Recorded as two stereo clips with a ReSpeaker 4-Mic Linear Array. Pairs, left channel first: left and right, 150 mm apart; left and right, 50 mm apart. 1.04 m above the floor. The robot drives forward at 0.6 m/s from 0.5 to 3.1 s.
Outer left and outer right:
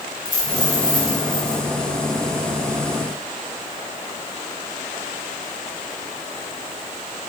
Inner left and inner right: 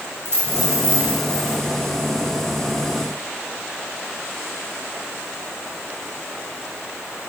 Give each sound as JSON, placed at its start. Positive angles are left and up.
{"t": 0.2, "sound": "a dropped coin", "side_deg": -65, "distance_m": 3.0}